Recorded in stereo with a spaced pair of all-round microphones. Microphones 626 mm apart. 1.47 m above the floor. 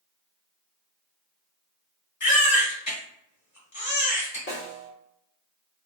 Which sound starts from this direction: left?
A baby crying, at 2.2 s.